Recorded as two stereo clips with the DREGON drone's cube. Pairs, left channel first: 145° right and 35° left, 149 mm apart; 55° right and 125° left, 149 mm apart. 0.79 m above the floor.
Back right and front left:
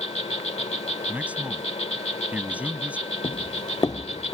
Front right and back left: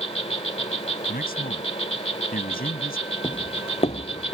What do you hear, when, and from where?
0.0 s an insect: 105° right
1.1 s a man speaking: 45° right
3.2 s footsteps: 105° right; by 4.3 s 75° right